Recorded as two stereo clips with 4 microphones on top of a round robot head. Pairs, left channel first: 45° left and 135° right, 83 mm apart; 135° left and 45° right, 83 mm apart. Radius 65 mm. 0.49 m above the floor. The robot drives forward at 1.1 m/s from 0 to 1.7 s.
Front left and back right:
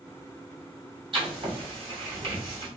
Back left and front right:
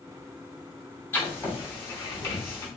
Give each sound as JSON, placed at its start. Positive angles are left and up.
{"t": 1.1, "sound": "writing", "azimuth_deg": -160, "distance_m": 2.0}